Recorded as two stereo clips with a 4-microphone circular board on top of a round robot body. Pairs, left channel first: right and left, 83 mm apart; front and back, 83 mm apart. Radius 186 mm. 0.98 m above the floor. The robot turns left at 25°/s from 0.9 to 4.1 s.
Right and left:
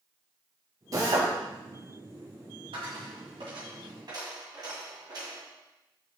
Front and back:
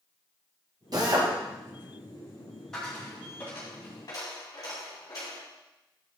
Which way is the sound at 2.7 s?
85° left.